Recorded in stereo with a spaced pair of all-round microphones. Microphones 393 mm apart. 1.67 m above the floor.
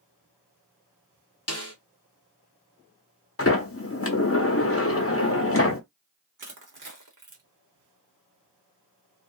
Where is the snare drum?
40° left (ahead or behind), 0.7 m.